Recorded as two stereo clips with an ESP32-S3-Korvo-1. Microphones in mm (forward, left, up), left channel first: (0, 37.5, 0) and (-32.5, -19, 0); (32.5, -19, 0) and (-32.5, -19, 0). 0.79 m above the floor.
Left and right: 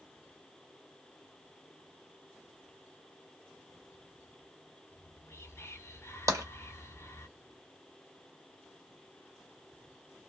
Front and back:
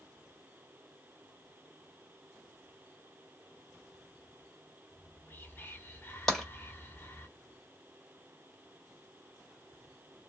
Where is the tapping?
85° right, 1.2 m.